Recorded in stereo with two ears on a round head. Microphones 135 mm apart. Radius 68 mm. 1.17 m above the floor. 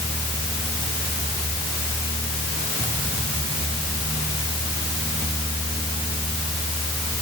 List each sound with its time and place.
Only background noise.